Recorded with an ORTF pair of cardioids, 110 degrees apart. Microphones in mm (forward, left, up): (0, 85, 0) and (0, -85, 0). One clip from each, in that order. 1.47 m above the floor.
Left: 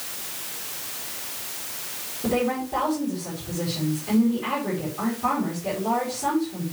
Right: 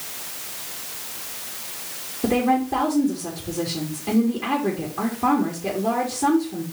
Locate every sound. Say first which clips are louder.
2.2 s a woman speaking: right 4 dB; 65° right, 4.5 m